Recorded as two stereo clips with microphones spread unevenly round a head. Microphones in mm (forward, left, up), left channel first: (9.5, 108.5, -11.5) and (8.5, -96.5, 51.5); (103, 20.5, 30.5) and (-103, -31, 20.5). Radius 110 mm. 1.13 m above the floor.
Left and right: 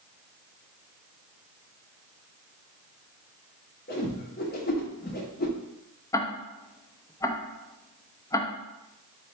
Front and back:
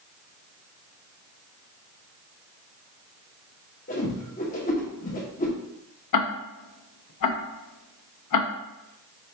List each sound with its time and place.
3.9 s a whoosh: 40° left, 0.8 m
6.1 s ticking: 10° left, 0.5 m